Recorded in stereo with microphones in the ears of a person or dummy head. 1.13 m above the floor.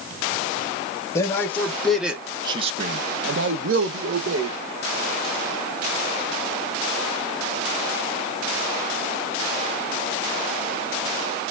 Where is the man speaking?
15° left (ahead or behind), 0.9 m; by 4.6 s 60° right (ahead or behind), 1.1 m.